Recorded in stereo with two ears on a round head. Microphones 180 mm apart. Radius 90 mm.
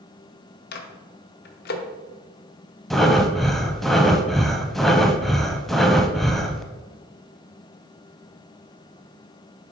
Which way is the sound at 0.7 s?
50° left (ahead or behind).